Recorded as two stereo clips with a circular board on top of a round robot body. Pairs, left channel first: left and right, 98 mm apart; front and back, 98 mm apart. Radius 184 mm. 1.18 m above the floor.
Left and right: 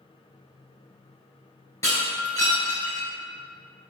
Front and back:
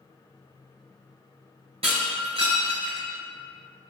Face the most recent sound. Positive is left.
turn(degrees=155)